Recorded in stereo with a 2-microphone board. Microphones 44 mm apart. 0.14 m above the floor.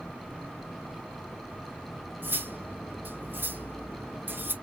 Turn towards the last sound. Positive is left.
turn(degrees=-50)  # may be behind; listen again after turning